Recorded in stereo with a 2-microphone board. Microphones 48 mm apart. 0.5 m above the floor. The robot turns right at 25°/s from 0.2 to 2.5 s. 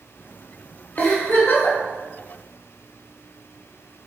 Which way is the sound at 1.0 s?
50° left (ahead or behind).